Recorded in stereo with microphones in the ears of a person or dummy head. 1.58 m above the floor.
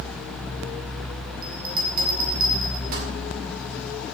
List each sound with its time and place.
1.4 s a bell: 45° right (ahead or behind), 1.9 m